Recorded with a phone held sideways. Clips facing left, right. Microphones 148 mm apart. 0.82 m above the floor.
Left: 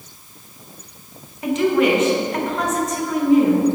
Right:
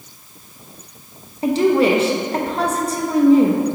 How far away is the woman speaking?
About 0.7 m.